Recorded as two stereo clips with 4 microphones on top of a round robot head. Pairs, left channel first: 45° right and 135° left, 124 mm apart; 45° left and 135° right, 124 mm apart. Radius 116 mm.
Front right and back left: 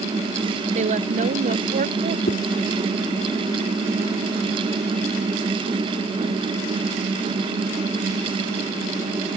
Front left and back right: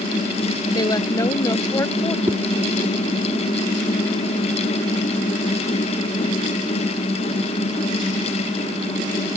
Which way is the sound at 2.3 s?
65° right.